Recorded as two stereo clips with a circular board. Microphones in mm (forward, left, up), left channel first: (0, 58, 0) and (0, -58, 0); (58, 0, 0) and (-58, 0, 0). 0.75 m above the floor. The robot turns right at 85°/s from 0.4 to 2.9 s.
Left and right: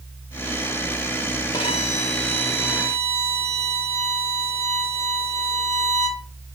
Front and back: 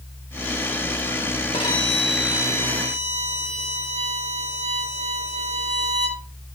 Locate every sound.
1.5 s a violin: 40° left, 2.5 m; by 6.2 s 155° left, 2.5 m